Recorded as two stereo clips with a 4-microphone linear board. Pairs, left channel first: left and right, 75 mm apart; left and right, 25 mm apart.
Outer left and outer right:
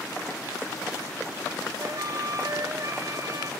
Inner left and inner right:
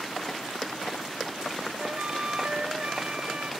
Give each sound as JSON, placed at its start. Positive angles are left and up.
{"t": 1.8, "sound": "a flute", "side_deg": -50}